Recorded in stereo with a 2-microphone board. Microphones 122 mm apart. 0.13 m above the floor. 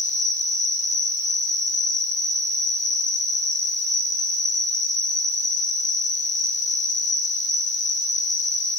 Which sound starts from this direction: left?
An insect, at 0.0 s.